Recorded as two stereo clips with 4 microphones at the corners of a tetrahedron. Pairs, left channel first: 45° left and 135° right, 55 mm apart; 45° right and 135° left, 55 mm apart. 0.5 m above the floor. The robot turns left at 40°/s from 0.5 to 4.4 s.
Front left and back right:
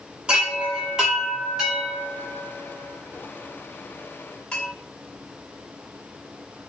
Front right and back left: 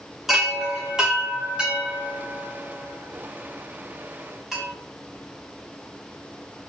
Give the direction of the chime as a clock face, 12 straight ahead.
5 o'clock.